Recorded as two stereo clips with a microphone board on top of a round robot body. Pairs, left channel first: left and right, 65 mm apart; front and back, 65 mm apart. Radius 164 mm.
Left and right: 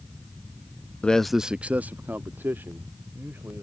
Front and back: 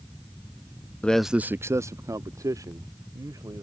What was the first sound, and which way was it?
A man speaking, 40° left.